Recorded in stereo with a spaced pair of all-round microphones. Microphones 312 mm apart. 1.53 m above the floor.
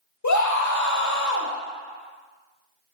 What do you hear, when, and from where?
0.2 s a scream: 70° left (ahead or behind), 0.7 m